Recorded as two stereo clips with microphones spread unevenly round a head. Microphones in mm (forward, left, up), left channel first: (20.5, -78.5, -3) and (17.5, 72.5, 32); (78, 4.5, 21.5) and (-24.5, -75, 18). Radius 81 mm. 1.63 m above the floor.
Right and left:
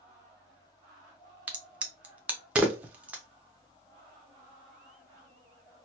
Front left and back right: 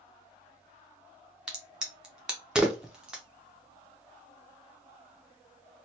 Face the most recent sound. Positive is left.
turn(degrees=135)